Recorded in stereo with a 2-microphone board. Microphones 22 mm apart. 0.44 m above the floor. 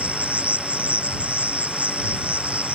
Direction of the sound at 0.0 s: 80° right.